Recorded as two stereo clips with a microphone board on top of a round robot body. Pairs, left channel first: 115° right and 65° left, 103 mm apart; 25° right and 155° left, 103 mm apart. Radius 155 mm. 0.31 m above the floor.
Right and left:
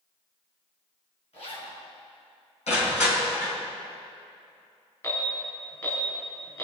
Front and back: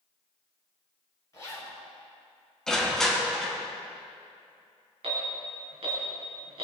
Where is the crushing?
110° right, 4 m.